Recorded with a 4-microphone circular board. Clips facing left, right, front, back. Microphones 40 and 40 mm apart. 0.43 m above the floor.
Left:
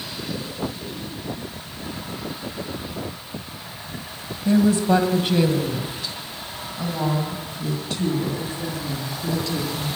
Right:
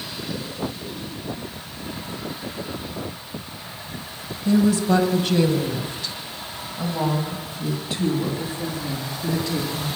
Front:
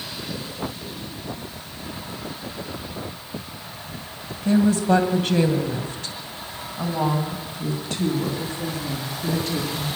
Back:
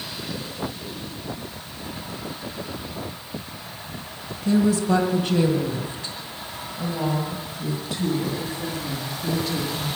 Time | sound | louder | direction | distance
4.5 | a woman speaking | left 1 dB, front 1 dB | 45° left | 2 m